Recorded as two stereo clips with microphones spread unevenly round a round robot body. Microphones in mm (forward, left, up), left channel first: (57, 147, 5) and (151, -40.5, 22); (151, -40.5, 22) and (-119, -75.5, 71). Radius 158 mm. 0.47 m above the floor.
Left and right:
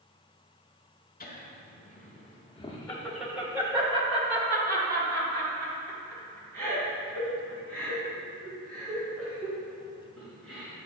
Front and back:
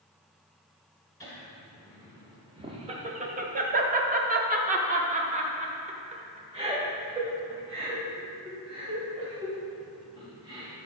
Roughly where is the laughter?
Left.